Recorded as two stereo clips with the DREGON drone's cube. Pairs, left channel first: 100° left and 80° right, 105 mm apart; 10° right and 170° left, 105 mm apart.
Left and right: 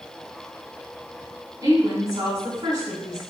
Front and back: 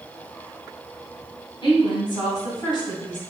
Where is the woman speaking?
35° right, 2.5 m.